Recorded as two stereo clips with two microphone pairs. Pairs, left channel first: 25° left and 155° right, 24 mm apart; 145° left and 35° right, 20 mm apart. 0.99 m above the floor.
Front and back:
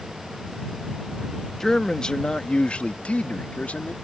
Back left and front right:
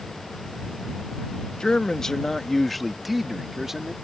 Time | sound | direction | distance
1.6 | a man speaking | 95° left | ?